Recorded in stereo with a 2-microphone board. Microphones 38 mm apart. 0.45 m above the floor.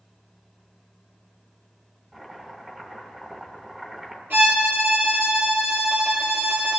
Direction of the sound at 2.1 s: 15° right (ahead or behind).